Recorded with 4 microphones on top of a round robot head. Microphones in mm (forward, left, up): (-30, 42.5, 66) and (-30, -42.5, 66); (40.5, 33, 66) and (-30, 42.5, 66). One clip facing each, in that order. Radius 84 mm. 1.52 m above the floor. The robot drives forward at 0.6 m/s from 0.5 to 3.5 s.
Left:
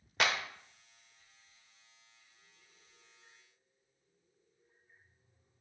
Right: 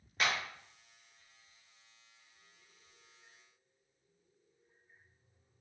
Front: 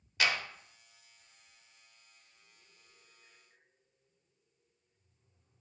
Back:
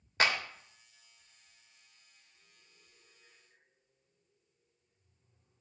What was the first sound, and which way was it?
A clap, 120° left.